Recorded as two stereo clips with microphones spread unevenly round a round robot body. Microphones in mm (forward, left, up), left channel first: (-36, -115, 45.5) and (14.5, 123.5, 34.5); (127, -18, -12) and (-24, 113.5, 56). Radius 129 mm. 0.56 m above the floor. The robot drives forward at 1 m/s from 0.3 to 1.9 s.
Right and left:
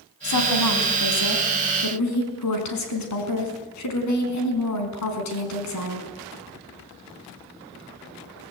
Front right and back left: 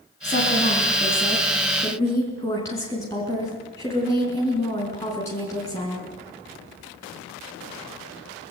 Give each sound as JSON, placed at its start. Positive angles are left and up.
{"t": 0.2, "sound": "a woman speaking", "azimuth_deg": -100, "distance_m": 4.5}